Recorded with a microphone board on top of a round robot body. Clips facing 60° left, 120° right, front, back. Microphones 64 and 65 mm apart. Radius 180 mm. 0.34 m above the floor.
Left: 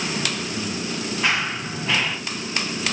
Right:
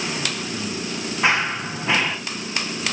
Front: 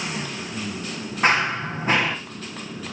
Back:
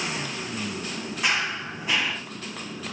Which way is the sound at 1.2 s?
50° right.